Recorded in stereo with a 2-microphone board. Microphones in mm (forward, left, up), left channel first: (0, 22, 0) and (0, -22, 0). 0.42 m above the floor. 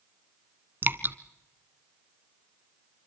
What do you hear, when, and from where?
0.8 s dripping: 50° right (ahead or behind), 1.2 m